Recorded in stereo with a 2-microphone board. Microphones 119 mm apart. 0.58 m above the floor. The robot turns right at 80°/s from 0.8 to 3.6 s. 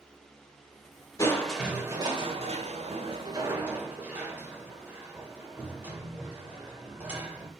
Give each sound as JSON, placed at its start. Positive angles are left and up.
{"t": 1.2, "sound": "crushing", "azimuth_deg": 150, "distance_m": 2.5}